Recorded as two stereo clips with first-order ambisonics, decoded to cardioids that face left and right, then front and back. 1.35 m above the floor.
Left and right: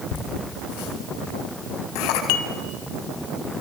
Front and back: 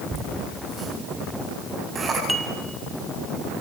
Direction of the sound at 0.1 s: 100° left.